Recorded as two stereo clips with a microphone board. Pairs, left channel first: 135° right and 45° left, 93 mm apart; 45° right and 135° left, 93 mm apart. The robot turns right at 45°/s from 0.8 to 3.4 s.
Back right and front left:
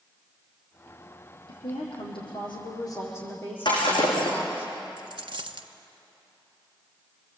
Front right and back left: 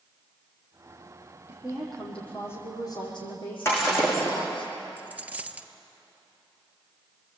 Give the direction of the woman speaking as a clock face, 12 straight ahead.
5 o'clock.